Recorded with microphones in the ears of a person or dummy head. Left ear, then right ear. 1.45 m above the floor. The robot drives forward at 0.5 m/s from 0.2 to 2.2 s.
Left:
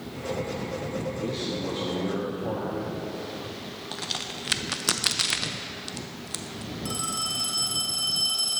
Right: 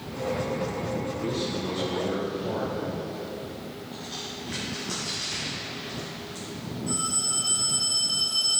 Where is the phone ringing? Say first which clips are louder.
Right 1 dB; 65° left (ahead or behind), 2 m.